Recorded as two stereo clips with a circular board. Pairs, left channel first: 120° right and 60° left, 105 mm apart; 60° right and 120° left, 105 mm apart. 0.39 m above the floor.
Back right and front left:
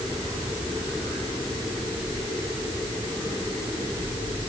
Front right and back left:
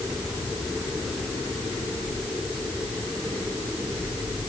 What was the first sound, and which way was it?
Only background noise.